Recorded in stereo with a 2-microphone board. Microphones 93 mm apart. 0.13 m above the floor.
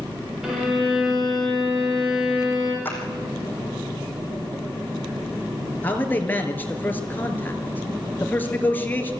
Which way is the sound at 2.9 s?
20° left (ahead or behind).